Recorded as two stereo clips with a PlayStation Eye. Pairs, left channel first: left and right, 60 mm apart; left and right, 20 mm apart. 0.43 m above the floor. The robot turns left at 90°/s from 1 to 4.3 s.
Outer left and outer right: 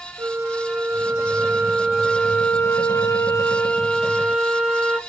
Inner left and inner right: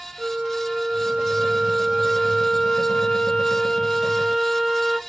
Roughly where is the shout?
I don't hear a shout.